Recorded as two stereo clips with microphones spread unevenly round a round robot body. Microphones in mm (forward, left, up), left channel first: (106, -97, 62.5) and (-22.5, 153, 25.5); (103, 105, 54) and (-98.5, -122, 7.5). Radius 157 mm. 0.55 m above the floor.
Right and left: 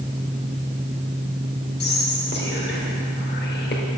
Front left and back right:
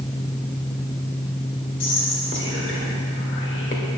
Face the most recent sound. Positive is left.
turn(degrees=-5)